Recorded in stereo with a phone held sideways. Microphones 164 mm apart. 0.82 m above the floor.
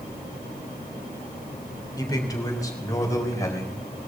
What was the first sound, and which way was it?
A man speaking, 25° left (ahead or behind).